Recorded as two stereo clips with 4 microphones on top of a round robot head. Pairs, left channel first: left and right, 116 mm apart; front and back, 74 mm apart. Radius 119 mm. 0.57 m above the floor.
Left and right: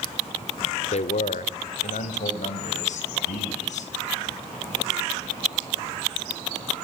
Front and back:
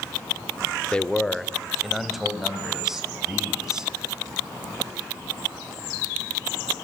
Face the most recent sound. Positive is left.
turn(degrees=95)